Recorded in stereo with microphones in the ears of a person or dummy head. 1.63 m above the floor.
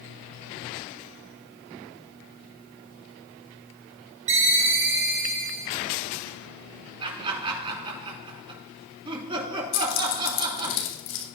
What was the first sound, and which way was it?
A ringtone, 30° right (ahead or behind).